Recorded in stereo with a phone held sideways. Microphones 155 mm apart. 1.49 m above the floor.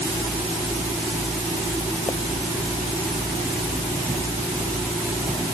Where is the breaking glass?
No breaking glass in this recording.